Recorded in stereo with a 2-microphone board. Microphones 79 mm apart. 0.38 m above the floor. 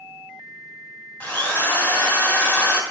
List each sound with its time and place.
1.2 s a drill: 20° left (ahead or behind), 1.3 m